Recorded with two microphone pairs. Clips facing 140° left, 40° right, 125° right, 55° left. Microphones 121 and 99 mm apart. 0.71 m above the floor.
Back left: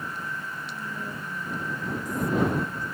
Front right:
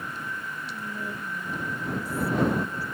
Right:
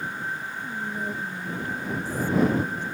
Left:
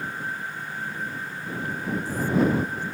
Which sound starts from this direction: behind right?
Whispering, at 0.6 s.